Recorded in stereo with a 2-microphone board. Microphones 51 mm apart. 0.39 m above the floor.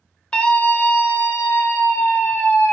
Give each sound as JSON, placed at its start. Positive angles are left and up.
{"t": 0.3, "sound": "a scream", "side_deg": 20, "distance_m": 1.0}